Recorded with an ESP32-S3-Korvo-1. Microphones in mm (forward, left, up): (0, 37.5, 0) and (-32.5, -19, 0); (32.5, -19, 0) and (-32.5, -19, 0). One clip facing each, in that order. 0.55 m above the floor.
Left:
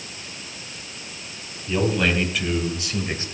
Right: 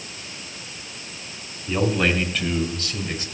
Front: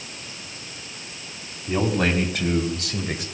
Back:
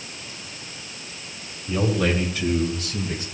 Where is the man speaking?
35° right, 3.5 m; by 3.2 s 5° left, 2 m.